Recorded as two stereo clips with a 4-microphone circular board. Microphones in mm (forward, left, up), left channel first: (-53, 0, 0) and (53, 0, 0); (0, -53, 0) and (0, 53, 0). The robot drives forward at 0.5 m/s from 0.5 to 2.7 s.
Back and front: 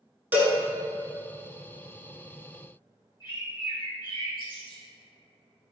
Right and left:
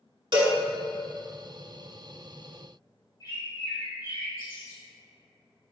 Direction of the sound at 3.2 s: 135° right.